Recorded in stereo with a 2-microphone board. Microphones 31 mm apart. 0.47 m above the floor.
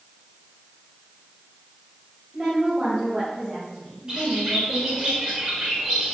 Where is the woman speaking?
35° right (ahead or behind), 2.5 m; by 5.1 s 25° right (ahead or behind), 5.5 m.